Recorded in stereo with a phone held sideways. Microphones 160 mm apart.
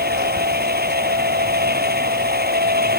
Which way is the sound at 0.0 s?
80° right.